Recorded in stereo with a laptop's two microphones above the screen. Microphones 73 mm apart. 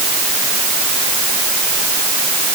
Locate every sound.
Only background noise.